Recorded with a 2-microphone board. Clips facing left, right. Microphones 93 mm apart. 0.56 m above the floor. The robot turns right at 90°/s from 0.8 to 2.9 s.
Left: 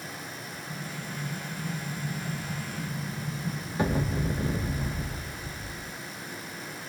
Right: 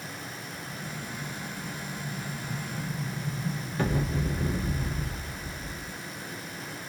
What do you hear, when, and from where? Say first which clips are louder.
0.7 s an explosion: left 1 dB; 25° right, 0.9 m; by 6.0 s 165° left, 0.9 m